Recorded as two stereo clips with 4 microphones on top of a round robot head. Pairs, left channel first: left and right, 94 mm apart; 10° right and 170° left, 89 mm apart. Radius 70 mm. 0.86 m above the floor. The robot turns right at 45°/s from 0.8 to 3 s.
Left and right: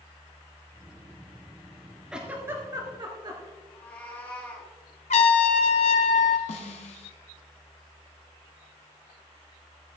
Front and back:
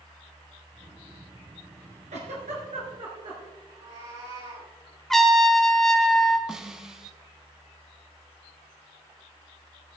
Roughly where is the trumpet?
Left.